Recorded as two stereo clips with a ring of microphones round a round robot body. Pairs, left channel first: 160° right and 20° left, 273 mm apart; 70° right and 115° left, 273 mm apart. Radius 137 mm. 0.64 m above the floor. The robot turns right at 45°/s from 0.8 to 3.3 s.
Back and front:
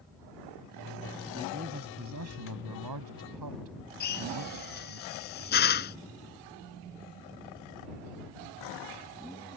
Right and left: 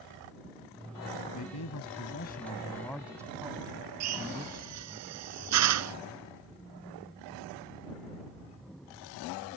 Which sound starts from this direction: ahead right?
A man speaking, at 1.3 s.